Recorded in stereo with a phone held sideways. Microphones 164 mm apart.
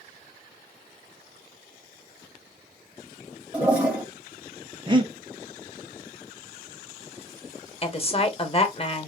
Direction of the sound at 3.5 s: 10° right (ahead or behind).